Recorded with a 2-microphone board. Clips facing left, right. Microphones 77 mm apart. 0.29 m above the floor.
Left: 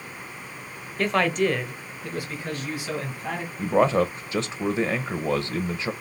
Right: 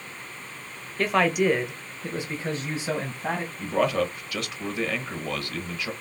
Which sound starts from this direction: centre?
A man speaking, at 1.0 s.